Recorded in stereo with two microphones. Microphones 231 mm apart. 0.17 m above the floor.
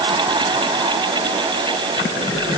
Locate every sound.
Only background noise.